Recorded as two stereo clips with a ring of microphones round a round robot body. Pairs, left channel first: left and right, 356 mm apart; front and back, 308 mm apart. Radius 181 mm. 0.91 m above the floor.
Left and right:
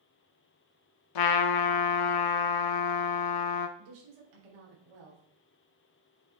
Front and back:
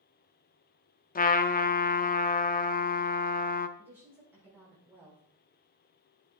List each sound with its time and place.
1.1 s a trumpet: 65° left, 0.6 m
3.8 s a woman speaking: 95° right, 3.5 m